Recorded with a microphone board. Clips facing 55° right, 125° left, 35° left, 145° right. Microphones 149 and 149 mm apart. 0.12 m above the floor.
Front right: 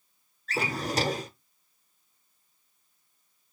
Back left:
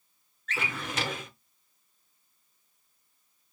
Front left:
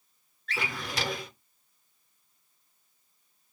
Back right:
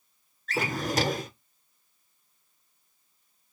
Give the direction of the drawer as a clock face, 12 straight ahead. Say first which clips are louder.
Front right 5 dB, back right 7 dB; 3 o'clock.